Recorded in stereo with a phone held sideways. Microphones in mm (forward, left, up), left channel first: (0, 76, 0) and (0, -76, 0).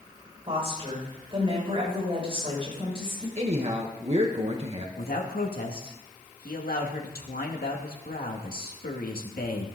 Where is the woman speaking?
40° right (ahead or behind), 7 m.